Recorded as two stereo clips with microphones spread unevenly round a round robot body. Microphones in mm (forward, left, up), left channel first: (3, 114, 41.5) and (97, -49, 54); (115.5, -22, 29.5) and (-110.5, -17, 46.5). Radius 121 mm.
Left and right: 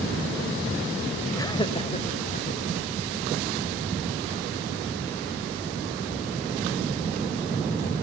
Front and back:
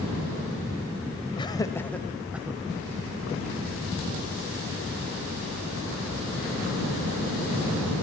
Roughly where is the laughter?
Ahead left.